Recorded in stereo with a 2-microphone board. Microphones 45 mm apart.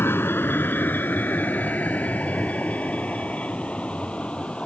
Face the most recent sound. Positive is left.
turn(degrees=25)  # may be behind; listen again after turning